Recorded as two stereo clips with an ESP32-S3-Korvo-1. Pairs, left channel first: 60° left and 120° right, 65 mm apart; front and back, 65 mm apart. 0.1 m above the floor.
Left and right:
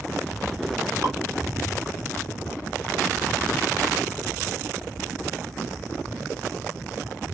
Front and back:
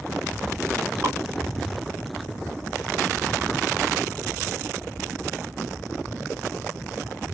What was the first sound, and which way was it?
Dripping, 150° right.